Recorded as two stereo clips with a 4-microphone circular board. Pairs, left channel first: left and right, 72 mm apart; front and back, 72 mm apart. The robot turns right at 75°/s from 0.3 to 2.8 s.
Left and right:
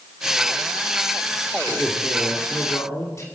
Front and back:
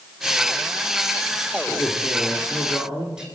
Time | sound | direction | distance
1.7 | a man speaking | 20° left | 2.5 m